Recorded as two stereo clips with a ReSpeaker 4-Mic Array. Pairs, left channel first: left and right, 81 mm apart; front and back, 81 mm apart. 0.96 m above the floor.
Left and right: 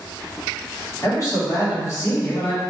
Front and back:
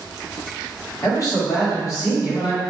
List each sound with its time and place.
1.0 s a man speaking: 40° left, 1.7 m